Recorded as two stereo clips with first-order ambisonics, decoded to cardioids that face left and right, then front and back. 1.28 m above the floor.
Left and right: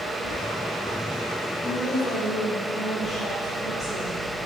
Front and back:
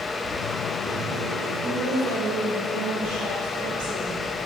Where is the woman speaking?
170° left, 4.5 m.